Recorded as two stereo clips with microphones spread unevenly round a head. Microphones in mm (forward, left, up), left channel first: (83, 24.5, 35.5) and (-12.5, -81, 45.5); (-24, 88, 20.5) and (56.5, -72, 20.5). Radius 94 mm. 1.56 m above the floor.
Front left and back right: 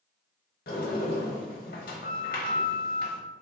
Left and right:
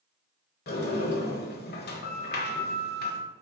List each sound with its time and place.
0.7 s a sliding door: 85° left, 0.8 m